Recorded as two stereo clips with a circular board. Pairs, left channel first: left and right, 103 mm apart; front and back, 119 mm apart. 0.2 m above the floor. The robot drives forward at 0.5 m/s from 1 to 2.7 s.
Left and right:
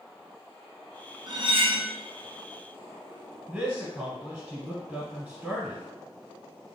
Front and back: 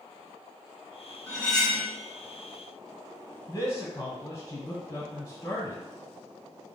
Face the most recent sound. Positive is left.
turn(degrees=-30)